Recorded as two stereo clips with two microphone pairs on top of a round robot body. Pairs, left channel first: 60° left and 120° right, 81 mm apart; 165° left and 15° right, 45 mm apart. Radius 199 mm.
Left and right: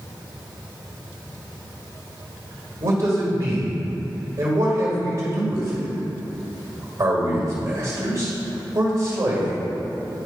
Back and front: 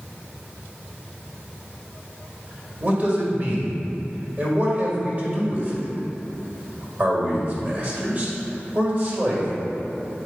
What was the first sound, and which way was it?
A man speaking, 75° right.